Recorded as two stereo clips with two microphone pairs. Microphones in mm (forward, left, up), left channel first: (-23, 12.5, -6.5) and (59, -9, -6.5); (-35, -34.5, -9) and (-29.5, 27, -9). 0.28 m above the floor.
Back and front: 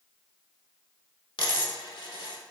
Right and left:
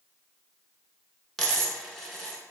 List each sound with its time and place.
1.4 s a dropped coin: 175° left, 0.6 m